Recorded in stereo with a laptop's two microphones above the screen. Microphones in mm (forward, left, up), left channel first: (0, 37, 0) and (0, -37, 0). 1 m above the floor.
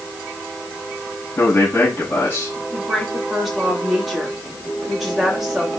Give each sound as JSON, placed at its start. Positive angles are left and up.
{"t": 1.4, "sound": "a man speaking", "side_deg": 25, "distance_m": 5.5}
{"t": 2.7, "sound": "a woman speaking", "side_deg": -5, "distance_m": 2.0}